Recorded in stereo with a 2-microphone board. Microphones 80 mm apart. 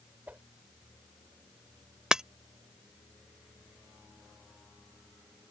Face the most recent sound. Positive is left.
turn(degrees=-10)  # may be behind; listen again after turning